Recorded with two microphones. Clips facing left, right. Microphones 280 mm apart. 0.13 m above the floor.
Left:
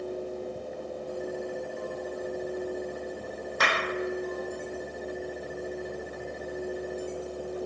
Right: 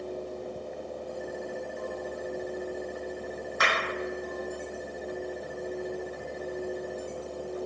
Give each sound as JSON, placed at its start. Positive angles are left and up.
{"t": 3.6, "sound": "a clap", "side_deg": 40, "distance_m": 3.5}